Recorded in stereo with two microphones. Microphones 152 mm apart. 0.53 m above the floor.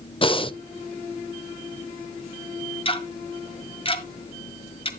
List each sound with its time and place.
0.2 s breathing: 30° left (ahead or behind), 0.5 m
2.9 s ticking: 35° left (ahead or behind), 1.7 m